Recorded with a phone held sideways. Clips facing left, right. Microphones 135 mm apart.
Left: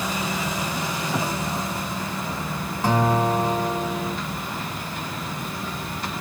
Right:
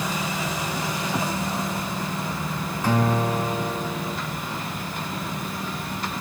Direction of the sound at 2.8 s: 30° left (ahead or behind).